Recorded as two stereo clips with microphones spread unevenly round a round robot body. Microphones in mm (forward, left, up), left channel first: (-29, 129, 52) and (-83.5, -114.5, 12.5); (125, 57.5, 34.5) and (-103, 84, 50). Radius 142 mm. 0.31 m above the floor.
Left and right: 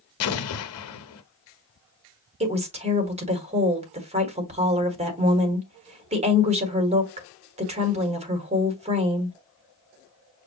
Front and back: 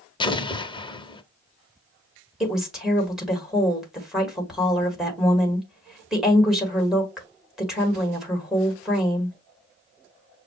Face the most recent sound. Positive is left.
turn(degrees=-95)